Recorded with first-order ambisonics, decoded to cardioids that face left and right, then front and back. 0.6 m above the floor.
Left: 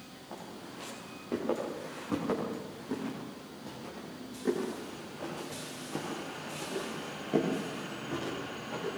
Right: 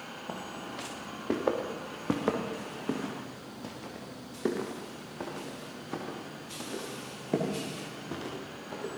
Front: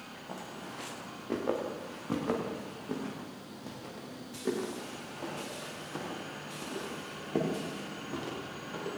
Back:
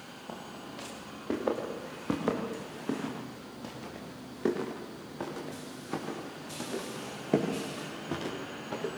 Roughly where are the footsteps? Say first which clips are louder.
Right 4 dB, front 1 dB; right.